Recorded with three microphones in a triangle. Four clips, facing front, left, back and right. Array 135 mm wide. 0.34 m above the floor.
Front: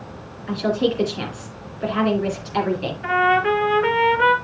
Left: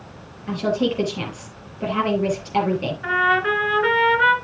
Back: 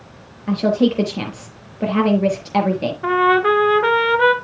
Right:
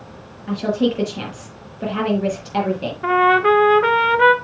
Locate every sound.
0.5 s a woman speaking: 175° right, 6 m
3.0 s a trumpet: 130° right, 1.2 m